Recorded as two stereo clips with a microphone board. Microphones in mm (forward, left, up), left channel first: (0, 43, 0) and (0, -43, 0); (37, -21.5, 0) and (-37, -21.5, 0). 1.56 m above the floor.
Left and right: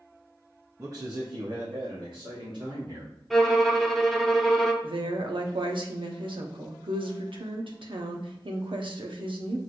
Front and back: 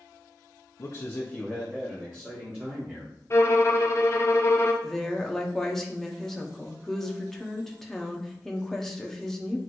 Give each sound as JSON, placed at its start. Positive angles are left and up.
{"t": 0.8, "sound": "a man speaking", "azimuth_deg": -30, "distance_m": 0.8}
{"t": 3.3, "sound": "a violin", "azimuth_deg": 0, "distance_m": 0.6}
{"t": 4.8, "sound": "a woman speaking", "azimuth_deg": -85, "distance_m": 0.8}